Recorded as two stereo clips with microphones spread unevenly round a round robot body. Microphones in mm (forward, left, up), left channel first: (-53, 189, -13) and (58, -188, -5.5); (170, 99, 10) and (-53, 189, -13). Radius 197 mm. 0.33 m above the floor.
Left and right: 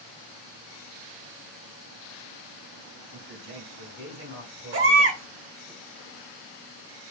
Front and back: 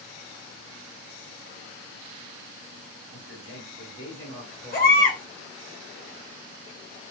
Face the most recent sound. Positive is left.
turn(degrees=-45)